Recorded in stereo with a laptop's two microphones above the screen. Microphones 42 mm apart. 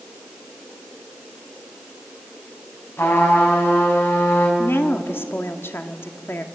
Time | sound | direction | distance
3.0 | a trumpet | 75° left (ahead or behind) | 6 m
4.6 | a woman speaking | 70° left (ahead or behind) | 1.9 m